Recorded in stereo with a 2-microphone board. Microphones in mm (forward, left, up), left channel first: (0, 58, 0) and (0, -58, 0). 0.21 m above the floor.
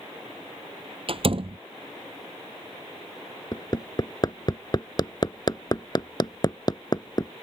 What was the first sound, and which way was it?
A door slam, 50° right (ahead or behind).